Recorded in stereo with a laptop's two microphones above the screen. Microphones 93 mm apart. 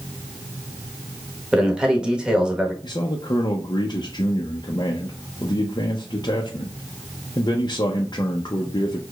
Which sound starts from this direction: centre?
A man speaking, at 1.5 s.